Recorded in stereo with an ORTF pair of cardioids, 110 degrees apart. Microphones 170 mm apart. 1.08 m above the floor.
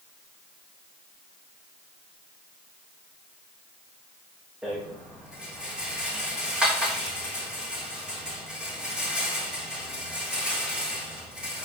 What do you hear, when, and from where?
4.6 s a rattle: 5° right, 4 m